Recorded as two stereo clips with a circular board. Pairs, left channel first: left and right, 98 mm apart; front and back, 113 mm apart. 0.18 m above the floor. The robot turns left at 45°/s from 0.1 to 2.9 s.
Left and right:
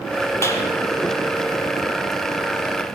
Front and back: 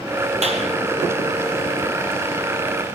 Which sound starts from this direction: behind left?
A clap, at 0.4 s.